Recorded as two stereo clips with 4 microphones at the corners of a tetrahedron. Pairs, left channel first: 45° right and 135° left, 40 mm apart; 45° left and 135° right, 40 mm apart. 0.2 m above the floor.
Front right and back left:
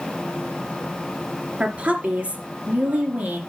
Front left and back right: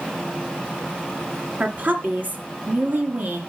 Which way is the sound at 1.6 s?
170° right.